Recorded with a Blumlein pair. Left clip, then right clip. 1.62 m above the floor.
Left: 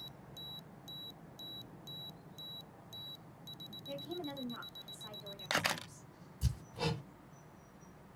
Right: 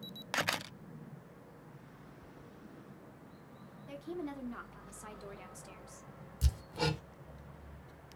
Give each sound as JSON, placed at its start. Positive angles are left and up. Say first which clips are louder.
{"t": 3.9, "sound": "a woman speaking", "louder": "right 1 dB", "azimuth_deg": -10, "distance_m": 1.3}
{"t": 6.4, "sound": "hammering", "louder": "right 4 dB", "azimuth_deg": -60, "distance_m": 0.8}